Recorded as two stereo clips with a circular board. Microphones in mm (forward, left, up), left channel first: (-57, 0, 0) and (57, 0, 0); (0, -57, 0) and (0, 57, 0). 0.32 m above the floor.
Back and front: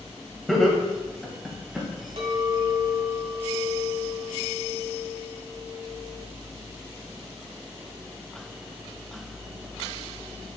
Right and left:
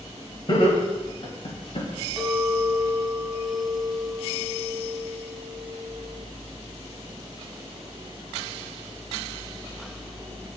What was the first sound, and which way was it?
Laughter, 90° right.